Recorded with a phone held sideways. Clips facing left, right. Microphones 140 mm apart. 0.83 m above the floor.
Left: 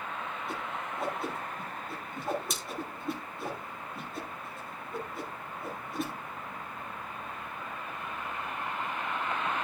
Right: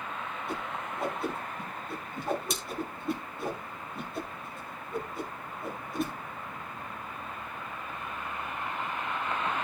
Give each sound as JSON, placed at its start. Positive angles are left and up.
{"t": 0.5, "sound": "a whoosh", "side_deg": 0, "distance_m": 4.5}